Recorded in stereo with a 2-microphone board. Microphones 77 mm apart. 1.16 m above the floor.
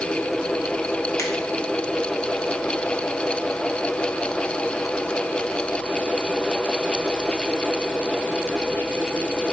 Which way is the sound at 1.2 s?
40° left (ahead or behind).